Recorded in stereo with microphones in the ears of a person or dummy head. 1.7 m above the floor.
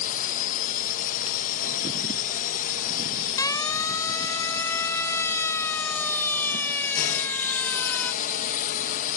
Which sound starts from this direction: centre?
A siren, at 3.4 s.